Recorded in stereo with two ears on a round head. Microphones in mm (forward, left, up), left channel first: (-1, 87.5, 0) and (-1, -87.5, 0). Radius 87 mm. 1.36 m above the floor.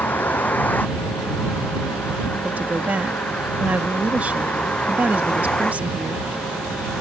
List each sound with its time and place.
0.0 s a vehicle: 10° left (ahead or behind); by 7.0 s 5° left (ahead or behind)
2.4 s a woman speaking: 10° right (ahead or behind)